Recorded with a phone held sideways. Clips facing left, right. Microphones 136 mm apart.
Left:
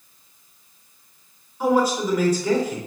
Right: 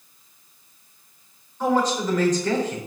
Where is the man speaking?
10° left (ahead or behind), 4.5 m.